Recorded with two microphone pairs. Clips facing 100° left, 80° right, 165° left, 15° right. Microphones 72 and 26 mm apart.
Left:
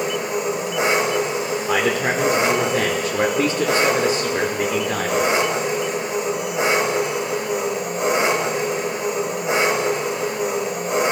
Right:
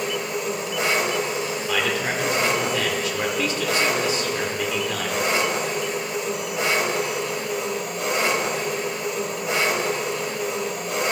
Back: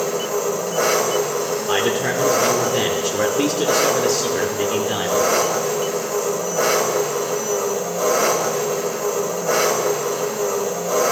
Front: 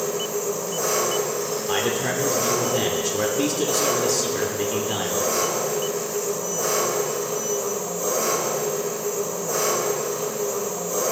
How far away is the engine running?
About 2 m.